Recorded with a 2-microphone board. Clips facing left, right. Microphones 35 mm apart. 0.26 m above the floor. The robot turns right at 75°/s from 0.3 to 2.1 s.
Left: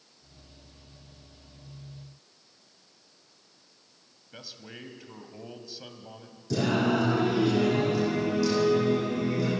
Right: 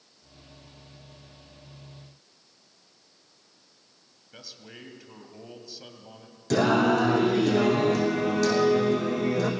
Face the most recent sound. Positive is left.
turn(degrees=-70)  # may be behind; listen again after turning